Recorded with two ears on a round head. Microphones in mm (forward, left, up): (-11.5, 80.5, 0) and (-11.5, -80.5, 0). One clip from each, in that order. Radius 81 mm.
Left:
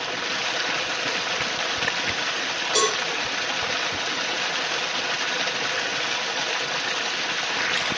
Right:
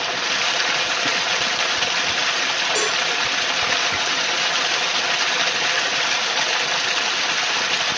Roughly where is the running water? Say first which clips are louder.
Right 5 dB; right.